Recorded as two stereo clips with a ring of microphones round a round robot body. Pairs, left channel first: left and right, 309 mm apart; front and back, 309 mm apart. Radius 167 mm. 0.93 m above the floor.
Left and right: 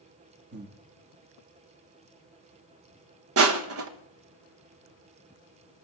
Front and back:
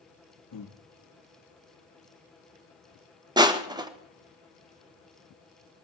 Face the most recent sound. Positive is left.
turn(degrees=-110)